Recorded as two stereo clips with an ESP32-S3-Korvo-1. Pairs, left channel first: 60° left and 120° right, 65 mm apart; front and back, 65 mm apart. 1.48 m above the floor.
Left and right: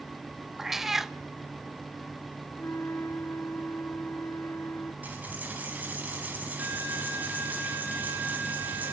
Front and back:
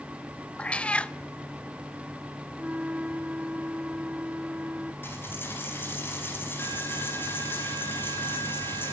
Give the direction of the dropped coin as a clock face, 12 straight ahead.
2 o'clock.